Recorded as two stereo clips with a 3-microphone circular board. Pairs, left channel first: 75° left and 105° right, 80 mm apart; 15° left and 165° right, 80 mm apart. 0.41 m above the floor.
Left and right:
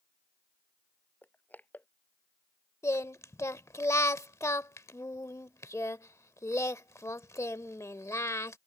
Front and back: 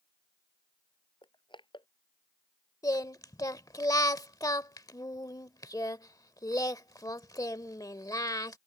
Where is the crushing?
5° left.